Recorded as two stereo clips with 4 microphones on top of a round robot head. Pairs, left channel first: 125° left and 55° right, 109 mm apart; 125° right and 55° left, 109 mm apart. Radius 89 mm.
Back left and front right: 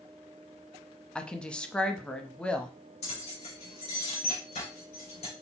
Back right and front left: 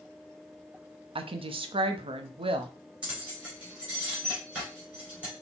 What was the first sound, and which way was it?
A woman speaking, 50° left.